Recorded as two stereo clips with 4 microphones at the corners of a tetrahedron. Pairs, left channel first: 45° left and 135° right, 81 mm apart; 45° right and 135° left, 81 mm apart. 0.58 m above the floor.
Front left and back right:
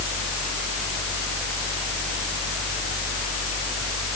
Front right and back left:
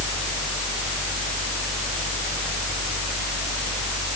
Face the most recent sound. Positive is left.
No sound to turn to.